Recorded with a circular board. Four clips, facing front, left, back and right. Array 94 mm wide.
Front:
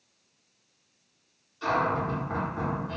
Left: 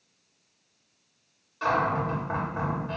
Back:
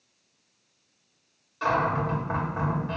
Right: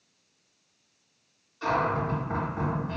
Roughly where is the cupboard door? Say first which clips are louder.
Left 1 dB, back 2 dB; behind left.